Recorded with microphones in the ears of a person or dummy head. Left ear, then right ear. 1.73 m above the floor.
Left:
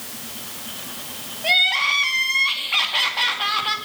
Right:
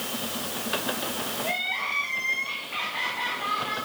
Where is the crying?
45° left (ahead or behind), 2 m.